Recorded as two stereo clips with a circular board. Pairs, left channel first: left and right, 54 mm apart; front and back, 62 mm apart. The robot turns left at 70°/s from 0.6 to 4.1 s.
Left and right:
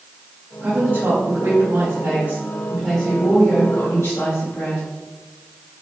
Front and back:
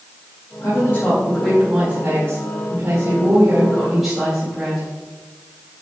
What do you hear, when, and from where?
0.6 s a woman speaking: 25° right, 2.5 m; by 4.9 s 90° left, 2.5 m